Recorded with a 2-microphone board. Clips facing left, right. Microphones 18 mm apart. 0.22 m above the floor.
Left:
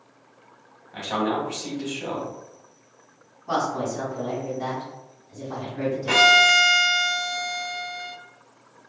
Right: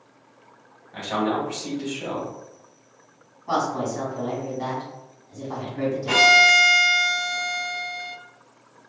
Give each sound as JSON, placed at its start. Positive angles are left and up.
{"t": 0.9, "sound": "a man speaking", "side_deg": 10, "distance_m": 1.0}
{"t": 3.5, "sound": "a woman speaking", "side_deg": -35, "distance_m": 1.8}
{"t": 6.1, "sound": "a violin", "side_deg": 20, "distance_m": 0.7}